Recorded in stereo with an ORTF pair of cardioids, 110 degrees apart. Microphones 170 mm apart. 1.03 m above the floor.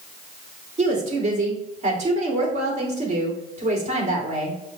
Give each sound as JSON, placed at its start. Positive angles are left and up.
{"t": 0.8, "sound": "a woman speaking", "azimuth_deg": -40, "distance_m": 2.0}